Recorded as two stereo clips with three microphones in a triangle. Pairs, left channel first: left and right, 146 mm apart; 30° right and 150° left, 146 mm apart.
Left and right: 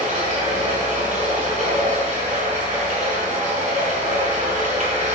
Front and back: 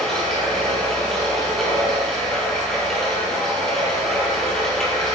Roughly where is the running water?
Behind right.